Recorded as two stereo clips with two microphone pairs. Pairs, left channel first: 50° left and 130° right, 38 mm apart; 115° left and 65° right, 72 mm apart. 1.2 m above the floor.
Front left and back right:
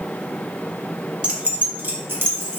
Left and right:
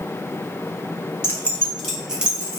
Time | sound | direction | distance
1.2 | keys jangling | 165° left | 0.8 m